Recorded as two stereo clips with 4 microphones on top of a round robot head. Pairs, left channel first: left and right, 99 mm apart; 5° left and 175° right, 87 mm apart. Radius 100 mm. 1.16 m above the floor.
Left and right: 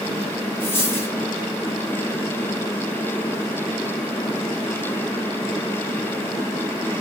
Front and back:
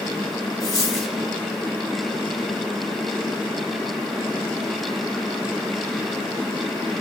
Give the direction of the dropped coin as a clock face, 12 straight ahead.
11 o'clock.